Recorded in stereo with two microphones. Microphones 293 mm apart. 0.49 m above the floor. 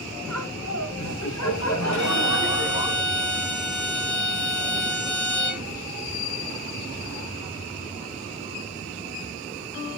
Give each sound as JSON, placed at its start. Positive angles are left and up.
{"t": 0.3, "sound": "laughter", "side_deg": 65, "distance_m": 2.5}
{"t": 1.9, "sound": "a violin", "side_deg": 80, "distance_m": 8.5}